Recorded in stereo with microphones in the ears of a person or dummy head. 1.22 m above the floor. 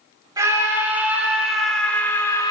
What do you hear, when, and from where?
0.4 s a scream: 20° right (ahead or behind), 2.5 m; by 2.5 s 20° left (ahead or behind), 1.4 m